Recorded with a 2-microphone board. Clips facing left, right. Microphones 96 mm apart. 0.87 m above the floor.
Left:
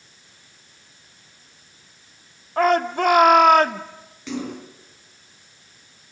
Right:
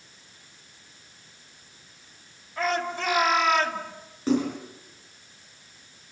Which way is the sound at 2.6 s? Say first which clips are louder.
Left 9 dB; 55° left (ahead or behind).